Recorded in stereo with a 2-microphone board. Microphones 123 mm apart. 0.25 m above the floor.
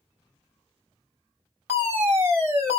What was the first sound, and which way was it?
A fire alarm, 15° right (ahead or behind).